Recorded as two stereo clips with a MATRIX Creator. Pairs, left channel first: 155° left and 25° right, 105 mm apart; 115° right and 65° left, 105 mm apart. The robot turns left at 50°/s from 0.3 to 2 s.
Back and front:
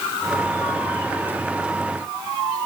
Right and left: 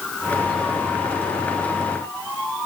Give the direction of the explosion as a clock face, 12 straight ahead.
No explosion in this recording.